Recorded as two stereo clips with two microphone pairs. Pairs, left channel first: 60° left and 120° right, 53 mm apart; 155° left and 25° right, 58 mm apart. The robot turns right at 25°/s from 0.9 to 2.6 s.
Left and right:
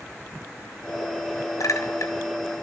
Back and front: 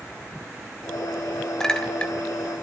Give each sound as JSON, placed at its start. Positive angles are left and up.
{"t": 1.6, "sound": "a clink", "azimuth_deg": 75, "distance_m": 3.5}